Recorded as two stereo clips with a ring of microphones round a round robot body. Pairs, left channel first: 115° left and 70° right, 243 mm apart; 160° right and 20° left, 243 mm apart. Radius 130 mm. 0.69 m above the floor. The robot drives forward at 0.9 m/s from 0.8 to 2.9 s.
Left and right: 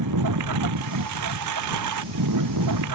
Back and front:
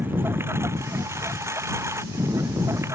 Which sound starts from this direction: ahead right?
A lawn mower, at 0.0 s.